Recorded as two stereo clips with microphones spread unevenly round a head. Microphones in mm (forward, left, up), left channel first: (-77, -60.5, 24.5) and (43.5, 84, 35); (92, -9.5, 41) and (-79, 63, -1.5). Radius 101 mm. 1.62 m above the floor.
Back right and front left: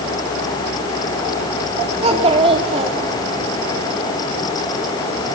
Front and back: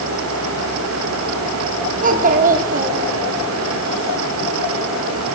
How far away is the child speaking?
About 3 m.